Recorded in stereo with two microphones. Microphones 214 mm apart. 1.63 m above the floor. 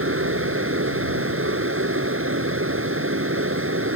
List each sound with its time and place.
0.0 s running water: 85° right